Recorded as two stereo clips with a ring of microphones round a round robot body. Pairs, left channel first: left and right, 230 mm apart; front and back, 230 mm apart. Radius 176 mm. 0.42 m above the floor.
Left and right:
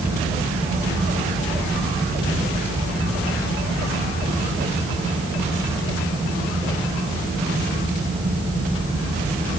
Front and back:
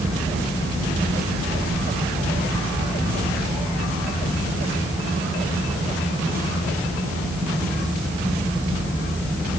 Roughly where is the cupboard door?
No cupboard door in this recording.